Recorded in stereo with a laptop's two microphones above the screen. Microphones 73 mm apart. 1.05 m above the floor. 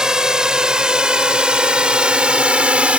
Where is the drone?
10° right (ahead or behind); by 3.0 s 20° right (ahead or behind).